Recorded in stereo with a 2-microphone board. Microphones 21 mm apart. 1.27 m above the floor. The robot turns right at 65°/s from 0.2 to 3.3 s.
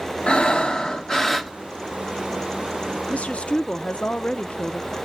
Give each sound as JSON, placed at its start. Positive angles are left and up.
{"t": 0.3, "sound": "breathing", "azimuth_deg": 85, "distance_m": 1.1}
{"t": 3.1, "sound": "a woman speaking", "side_deg": 85, "distance_m": 0.7}